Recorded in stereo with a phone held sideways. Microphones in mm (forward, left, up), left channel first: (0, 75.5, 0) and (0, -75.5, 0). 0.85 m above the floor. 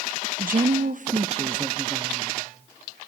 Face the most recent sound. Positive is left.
turn(degrees=-15)  # may be behind; listen again after turning